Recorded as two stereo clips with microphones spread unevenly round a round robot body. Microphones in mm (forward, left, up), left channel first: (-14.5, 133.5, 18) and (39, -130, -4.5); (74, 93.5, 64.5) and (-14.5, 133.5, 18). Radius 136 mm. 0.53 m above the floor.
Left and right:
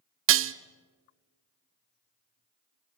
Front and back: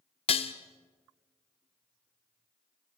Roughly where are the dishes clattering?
Right.